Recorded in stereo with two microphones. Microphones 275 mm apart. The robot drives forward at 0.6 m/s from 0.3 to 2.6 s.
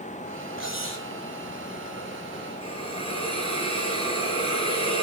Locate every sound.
0.6 s cutlery clinking: 50° left (ahead or behind), 8.5 m
2.6 s a hiss: 20° left (ahead or behind), 8.5 m